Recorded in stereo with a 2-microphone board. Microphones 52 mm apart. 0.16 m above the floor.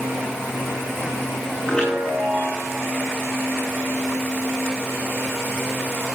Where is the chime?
15° left (ahead or behind), 9.5 m.